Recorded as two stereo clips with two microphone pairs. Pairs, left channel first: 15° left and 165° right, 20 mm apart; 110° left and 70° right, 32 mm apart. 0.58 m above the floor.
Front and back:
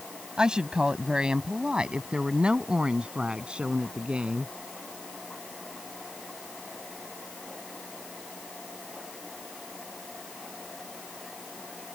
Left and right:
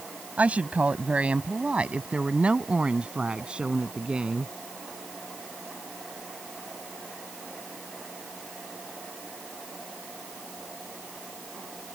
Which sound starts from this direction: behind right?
A woman speaking, at 0.4 s.